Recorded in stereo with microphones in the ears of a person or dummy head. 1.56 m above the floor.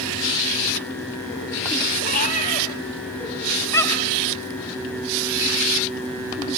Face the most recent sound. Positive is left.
turn(degrees=10)  # may be behind; listen again after turning